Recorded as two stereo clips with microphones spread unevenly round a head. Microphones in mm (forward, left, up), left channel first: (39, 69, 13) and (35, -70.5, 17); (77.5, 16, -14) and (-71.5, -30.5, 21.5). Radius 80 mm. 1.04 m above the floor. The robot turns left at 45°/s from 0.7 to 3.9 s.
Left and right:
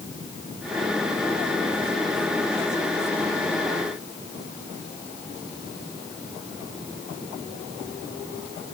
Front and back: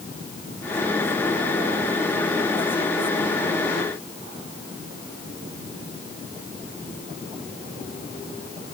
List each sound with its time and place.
Only background noise.